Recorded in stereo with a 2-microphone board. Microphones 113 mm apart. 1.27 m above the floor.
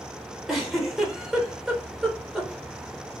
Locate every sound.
0.5 s a giggle: centre (ahead or behind), 0.8 m